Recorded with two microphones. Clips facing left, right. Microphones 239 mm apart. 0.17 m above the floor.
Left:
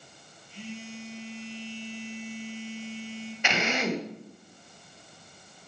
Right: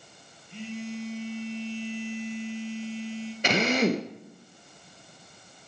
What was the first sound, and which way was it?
A phone buzzing, 65° right (ahead or behind).